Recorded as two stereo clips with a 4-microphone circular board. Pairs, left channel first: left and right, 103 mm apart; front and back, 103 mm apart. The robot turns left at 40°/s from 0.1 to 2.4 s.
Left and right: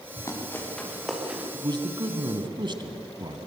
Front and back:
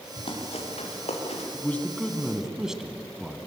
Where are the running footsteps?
30° left, 7.5 m; by 1.4 s 15° right, 6 m.